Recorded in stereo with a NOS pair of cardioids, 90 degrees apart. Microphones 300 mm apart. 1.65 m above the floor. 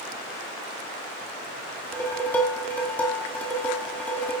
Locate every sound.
1.9 s dishes clattering: 5° left, 7 m